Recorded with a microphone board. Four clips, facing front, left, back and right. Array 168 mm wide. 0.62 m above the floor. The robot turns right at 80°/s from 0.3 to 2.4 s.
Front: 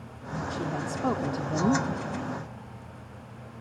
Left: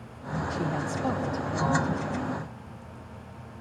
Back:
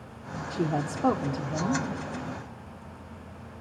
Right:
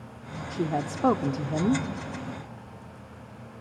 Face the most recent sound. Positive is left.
turn(degrees=5)